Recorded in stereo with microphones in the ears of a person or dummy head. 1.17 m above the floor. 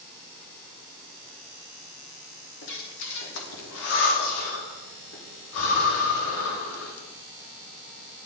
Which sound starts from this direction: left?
Breathing, at 2.6 s.